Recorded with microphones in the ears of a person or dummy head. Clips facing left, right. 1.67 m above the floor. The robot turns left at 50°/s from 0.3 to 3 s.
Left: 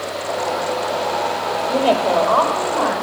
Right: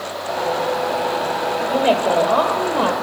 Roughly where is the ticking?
No ticking in this recording.